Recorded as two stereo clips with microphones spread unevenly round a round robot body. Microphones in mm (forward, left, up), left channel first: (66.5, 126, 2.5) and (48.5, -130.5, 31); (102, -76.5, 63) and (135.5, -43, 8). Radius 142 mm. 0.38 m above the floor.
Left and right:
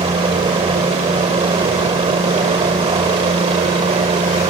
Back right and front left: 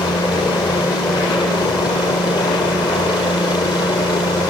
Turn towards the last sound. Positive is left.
turn(degrees=-155)